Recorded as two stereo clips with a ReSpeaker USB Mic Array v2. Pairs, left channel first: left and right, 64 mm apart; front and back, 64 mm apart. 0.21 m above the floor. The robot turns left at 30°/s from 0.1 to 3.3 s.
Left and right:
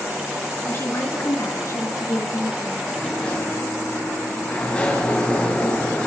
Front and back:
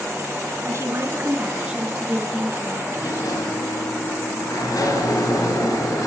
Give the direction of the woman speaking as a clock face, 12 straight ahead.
7 o'clock.